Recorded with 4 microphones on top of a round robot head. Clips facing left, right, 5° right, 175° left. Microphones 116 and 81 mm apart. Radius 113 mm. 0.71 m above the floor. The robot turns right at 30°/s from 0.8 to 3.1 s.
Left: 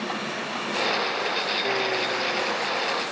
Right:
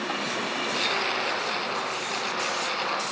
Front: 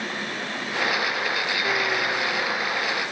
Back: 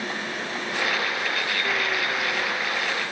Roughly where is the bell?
No bell in this recording.